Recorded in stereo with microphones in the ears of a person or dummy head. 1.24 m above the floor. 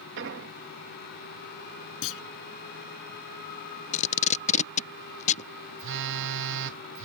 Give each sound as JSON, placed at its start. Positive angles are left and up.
{"t": 0.2, "sound": "an explosion", "side_deg": -70}
{"t": 2.0, "sound": "a clunk", "side_deg": 80}
{"t": 3.9, "sound": "tape being pulled", "side_deg": 40}
{"t": 5.8, "sound": "a phone buzzing", "side_deg": -75}